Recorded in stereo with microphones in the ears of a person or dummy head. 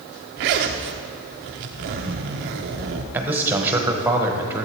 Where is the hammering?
No hammering in this recording.